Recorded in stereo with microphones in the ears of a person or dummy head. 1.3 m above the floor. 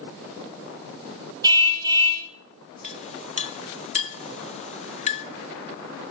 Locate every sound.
1.4 s a car horn: 25° right (ahead or behind), 5 m
2.8 s a clink: 35° left (ahead or behind), 0.8 m